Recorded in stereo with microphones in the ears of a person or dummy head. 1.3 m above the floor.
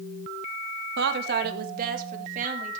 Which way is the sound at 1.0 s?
60° right (ahead or behind).